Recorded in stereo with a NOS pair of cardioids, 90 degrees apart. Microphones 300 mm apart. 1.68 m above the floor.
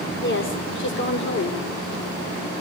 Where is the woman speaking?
35° left, 6.5 m.